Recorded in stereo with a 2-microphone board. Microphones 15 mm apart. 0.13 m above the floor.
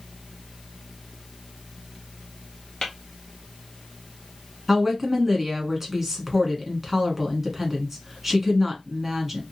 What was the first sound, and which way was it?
Tapping, 50° left (ahead or behind).